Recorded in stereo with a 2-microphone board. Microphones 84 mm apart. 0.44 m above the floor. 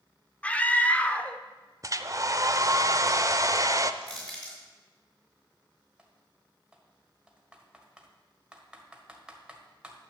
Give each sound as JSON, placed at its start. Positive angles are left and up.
{"t": 0.4, "sound": "a scream", "side_deg": 15, "distance_m": 0.7}
{"t": 1.8, "sound": "a hair dryer", "side_deg": -40, "distance_m": 0.6}
{"t": 4.0, "sound": "crushing", "side_deg": 10, "distance_m": 4.5}
{"t": 6.0, "sound": "typing on a keyboard", "side_deg": -10, "distance_m": 1.5}